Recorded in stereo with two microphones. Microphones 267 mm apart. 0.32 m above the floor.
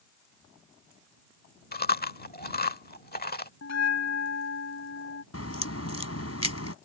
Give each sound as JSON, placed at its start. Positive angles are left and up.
{"t": 1.7, "sound": "chewing", "side_deg": 35}
{"t": 3.6, "sound": "a bell", "side_deg": 75}
{"t": 5.3, "sound": "a crack", "side_deg": 65}